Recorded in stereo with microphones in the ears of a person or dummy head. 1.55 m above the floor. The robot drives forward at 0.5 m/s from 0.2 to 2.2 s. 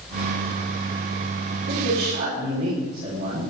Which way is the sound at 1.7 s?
55° right (ahead or behind).